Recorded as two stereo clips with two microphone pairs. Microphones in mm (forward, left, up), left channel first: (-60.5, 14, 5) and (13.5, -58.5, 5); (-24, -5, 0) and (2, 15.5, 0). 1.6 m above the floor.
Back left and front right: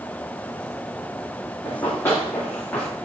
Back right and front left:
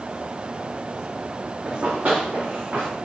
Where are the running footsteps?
70° left, 7 m; by 2.9 s 60° left, 8 m.